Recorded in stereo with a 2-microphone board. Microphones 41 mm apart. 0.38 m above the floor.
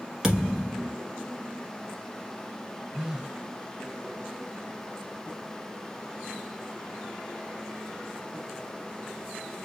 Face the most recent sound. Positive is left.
turn(degrees=-20)  # may be behind; listen again after turning